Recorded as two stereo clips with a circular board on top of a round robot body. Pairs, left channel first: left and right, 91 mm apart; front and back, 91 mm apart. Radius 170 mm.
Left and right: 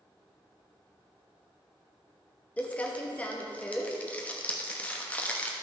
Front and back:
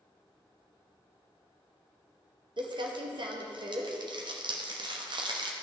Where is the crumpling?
165° left, 1.1 m.